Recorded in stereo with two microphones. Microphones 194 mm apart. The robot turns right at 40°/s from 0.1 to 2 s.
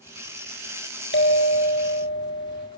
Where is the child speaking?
No child speaking in this recording.